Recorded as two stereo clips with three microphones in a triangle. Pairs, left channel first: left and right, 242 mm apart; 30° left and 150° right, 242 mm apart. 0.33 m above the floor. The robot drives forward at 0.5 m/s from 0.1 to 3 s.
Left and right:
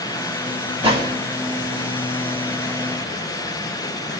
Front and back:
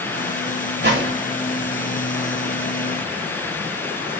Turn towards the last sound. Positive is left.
turn(degrees=-165)